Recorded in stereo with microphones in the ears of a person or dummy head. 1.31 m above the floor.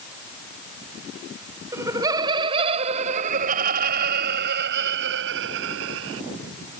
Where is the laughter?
15° right (ahead or behind); by 6.2 s 75° right (ahead or behind).